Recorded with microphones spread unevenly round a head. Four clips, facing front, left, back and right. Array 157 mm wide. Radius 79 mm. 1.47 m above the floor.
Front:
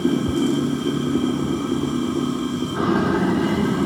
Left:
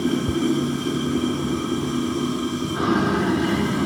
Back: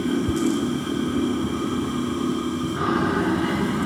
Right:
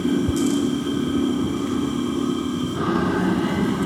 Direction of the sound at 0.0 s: Straight ahead.